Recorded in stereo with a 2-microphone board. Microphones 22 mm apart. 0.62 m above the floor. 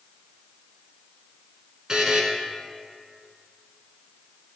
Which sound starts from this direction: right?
A buzzer, at 1.9 s.